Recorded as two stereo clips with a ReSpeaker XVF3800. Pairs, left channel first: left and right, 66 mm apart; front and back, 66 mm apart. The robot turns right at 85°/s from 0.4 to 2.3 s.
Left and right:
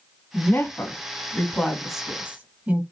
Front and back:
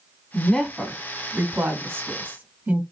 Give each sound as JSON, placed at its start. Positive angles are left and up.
{"t": 0.3, "sound": "a woman speaking", "azimuth_deg": 60, "distance_m": 1.0}